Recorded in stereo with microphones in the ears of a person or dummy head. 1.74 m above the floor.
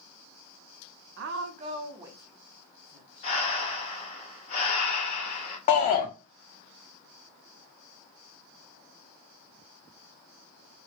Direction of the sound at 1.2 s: 60° right (ahead or behind).